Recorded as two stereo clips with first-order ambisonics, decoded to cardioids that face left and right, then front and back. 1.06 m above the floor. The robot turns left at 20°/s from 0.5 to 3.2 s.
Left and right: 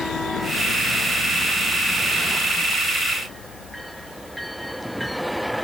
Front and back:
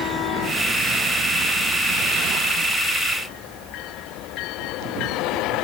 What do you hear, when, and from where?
Only background noise.